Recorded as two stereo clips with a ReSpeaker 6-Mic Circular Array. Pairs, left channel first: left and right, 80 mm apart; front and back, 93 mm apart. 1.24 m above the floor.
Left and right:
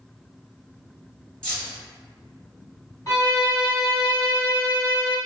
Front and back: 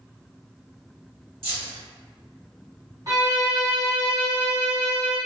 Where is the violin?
130° left, 1.4 m.